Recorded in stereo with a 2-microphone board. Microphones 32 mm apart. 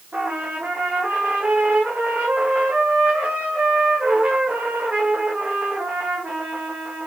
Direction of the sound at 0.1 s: 60° right (ahead or behind).